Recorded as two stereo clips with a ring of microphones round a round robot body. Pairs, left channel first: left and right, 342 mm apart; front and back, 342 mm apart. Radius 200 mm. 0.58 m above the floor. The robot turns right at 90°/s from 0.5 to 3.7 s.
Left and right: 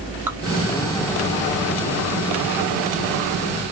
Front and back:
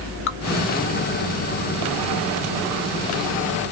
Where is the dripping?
10° right, 0.8 m.